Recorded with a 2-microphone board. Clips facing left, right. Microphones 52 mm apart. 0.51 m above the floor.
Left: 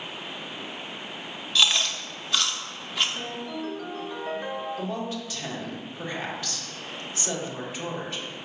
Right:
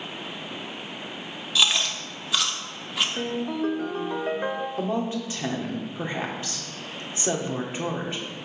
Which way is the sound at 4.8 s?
25° right (ahead or behind).